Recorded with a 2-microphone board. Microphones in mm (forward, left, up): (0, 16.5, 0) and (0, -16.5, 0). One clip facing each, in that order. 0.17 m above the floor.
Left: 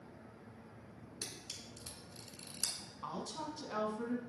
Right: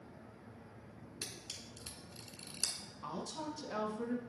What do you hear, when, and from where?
1.2 s a camera shutter: 30° right (ahead or behind), 0.9 m
3.0 s a woman speaking: 20° left (ahead or behind), 1.3 m